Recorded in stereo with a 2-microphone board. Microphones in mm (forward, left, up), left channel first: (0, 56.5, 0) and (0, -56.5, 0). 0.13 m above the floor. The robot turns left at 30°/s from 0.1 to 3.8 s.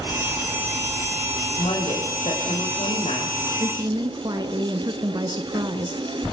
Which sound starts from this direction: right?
A woman speaking, at 3.6 s.